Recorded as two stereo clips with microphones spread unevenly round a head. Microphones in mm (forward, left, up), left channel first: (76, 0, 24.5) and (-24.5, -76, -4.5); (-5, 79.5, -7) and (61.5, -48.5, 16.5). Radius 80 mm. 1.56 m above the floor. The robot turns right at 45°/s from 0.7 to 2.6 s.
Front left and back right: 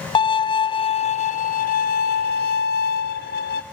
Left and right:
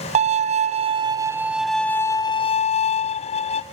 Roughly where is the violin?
Ahead.